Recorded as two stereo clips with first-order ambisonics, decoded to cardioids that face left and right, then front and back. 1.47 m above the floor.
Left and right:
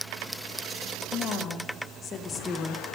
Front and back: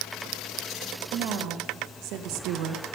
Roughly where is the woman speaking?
Behind left.